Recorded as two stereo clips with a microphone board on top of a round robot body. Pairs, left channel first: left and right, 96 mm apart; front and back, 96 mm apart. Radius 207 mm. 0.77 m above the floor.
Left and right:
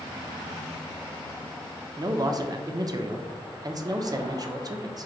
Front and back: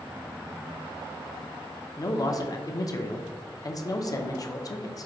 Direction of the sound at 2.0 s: 45° right.